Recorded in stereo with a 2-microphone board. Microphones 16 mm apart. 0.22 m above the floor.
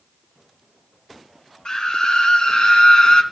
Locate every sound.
1.6 s a scream: 55° left (ahead or behind), 3.5 m